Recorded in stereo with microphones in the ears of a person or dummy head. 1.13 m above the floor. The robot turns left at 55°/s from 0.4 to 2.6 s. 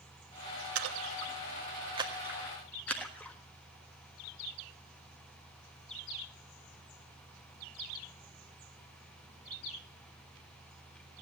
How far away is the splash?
About 1.5 m.